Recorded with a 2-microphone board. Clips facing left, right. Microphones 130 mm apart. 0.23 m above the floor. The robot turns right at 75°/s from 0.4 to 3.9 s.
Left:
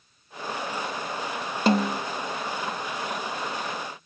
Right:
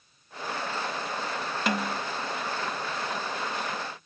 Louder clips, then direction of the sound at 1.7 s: Left 8 dB; 30° left (ahead or behind).